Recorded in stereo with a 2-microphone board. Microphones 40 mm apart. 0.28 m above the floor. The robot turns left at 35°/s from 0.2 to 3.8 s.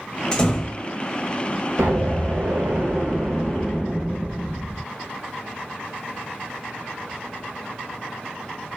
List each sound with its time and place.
0.3 s a door slam: 20° left (ahead or behind), 0.6 m
1.8 s an explosion: 100° right, 0.8 m; by 4.8 s 170° right, 0.8 m